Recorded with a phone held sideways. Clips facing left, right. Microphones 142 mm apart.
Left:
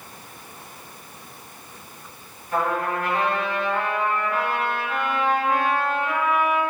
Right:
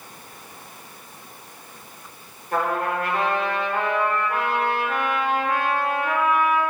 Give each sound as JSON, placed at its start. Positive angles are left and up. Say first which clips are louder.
{"t": 2.5, "sound": "a trumpet", "louder": "even", "side_deg": -60, "distance_m": 2.0}